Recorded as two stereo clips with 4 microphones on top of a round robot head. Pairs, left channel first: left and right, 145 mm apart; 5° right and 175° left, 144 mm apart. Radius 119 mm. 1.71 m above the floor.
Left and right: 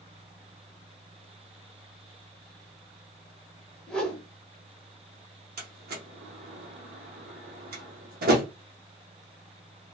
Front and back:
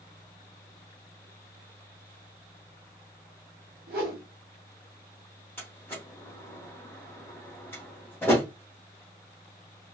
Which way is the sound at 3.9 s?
175° left.